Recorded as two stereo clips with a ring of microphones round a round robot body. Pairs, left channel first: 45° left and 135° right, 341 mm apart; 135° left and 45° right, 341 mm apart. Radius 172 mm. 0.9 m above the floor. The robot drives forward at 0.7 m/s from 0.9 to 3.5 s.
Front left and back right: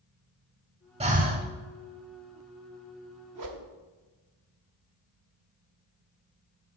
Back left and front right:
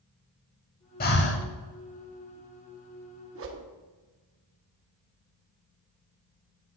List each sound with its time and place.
1.0 s breathing: 170° left, 0.7 m; by 1.5 s 175° left, 0.9 m
3.4 s a whoosh: 95° right, 0.9 m; by 3.7 s 105° right, 0.9 m